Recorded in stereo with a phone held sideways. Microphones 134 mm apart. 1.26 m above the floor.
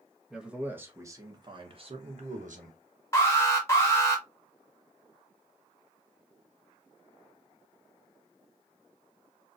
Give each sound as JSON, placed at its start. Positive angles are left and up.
{"t": 0.3, "sound": "a man speaking", "side_deg": -5, "distance_m": 1.4}
{"t": 3.1, "sound": "an alarm", "side_deg": 20, "distance_m": 1.6}